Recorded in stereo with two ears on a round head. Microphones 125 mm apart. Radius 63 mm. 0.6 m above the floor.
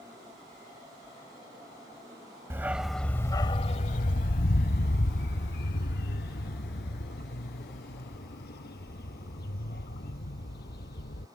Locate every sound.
2.5 s a dog barking: 20° right (ahead or behind); by 11.2 s 80° left